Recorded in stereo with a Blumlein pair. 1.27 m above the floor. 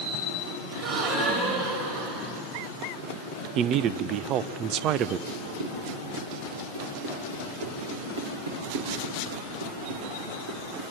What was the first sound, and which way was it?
A gasp, 45° right.